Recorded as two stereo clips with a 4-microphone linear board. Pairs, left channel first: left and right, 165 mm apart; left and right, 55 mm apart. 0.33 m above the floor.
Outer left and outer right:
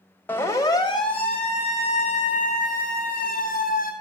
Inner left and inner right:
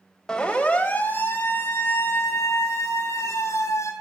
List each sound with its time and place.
0.3 s a siren: 10° left (ahead or behind), 2.5 m; by 3.9 s 55° left (ahead or behind), 5.5 m